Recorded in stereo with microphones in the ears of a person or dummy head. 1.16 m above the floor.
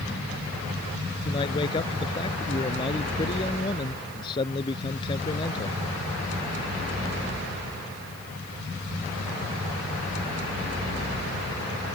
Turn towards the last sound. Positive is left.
turn(degrees=25)  # may be behind; listen again after turning